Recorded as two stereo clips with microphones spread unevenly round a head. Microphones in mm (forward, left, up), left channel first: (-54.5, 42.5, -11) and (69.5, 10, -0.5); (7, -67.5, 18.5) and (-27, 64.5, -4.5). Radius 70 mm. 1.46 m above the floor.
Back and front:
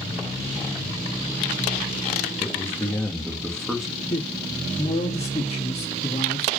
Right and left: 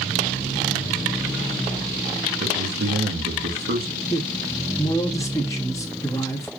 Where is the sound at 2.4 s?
95° left, 2.5 m; by 3.9 s 70° left, 2 m.